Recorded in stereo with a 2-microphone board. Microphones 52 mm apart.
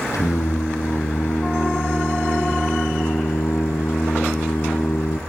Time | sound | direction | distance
0.1 | singing | 85° left | 2.5 m